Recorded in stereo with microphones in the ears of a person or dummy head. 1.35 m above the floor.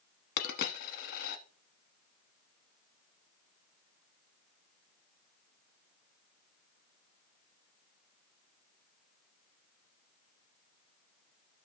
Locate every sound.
0.4 s a dropped coin: 50° left (ahead or behind), 1.0 m